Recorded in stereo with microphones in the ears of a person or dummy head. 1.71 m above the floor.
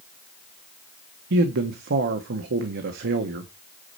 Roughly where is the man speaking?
Right.